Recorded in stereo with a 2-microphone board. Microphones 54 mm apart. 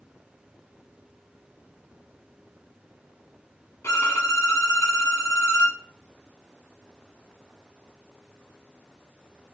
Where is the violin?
60° left (ahead or behind), 1.2 m.